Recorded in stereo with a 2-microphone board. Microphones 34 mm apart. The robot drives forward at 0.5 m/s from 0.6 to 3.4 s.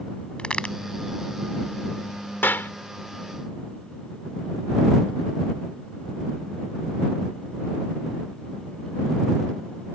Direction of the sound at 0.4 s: 35° left (ahead or behind).